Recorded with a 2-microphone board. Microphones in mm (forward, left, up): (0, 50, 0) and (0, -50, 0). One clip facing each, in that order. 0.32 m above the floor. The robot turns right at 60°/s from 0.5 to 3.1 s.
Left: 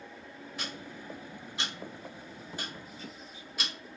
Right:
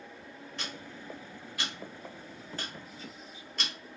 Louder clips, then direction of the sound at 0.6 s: Left 1 dB; 5° left (ahead or behind).